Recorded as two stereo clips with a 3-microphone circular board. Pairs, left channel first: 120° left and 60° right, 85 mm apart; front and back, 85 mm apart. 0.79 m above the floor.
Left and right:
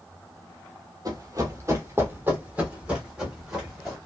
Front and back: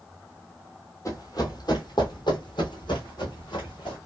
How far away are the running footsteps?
About 1.1 m.